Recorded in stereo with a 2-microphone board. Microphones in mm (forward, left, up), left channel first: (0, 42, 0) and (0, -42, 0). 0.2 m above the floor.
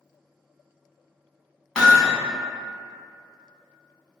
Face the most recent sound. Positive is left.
turn(degrees=10)  # may be behind; listen again after turning